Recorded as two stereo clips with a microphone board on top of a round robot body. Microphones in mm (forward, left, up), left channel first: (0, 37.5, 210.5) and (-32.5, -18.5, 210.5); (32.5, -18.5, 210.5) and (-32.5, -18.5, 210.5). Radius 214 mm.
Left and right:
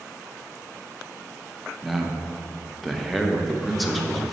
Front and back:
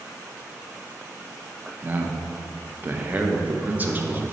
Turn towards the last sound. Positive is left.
turn(degrees=150)